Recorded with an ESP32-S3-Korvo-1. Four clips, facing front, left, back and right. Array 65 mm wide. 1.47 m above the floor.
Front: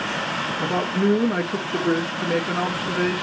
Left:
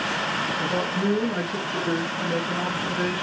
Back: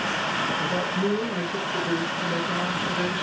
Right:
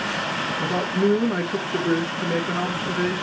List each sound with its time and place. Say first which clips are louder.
0.6 s a man speaking: right 5 dB, front 4 dB; 30° right, 3 m